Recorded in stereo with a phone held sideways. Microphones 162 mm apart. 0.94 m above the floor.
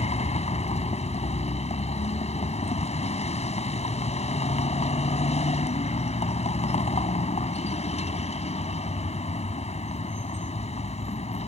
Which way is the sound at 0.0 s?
40° left (ahead or behind).